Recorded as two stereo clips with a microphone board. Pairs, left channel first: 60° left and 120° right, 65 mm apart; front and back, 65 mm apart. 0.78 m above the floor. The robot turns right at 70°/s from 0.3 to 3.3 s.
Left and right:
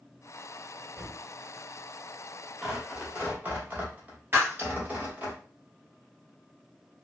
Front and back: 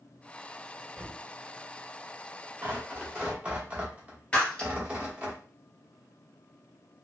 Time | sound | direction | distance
0.9 | a thud | 90° left | 1.6 m
2.6 | tearing paper | 160° left | 1.1 m
4.3 | breaking glass | 70° right | 1.5 m